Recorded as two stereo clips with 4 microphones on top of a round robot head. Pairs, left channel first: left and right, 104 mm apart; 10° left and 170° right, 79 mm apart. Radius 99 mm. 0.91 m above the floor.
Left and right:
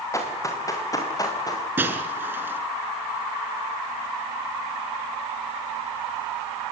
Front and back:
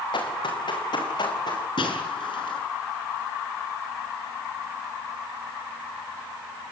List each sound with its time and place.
0.1 s running footsteps: 30° left, 7.5 m; by 1.7 s 35° left, 7 m
1.8 s breaking glass: 20° right, 6 m